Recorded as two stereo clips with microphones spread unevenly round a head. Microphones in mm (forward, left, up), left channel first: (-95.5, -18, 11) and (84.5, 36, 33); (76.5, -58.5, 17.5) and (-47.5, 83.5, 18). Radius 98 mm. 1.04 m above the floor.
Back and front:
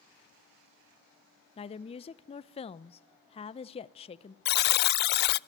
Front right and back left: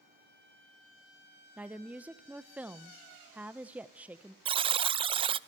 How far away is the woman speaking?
About 0.8 m.